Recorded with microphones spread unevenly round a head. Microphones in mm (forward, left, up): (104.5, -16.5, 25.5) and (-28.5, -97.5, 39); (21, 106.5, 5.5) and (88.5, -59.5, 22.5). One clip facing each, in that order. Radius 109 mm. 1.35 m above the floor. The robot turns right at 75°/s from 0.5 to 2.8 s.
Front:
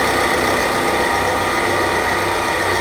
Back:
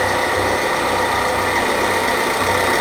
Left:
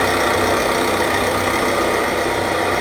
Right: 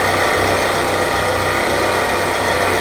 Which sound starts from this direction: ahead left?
An engine running, at 0.0 s.